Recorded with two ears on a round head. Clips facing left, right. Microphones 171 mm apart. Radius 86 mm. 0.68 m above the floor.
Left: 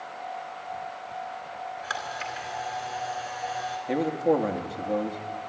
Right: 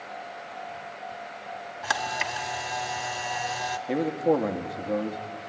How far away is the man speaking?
About 1.1 m.